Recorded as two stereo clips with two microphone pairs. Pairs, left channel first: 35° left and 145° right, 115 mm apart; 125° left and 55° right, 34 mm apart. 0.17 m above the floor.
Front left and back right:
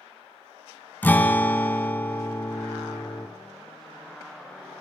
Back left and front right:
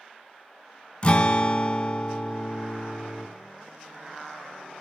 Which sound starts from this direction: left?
A guitar, at 1.0 s.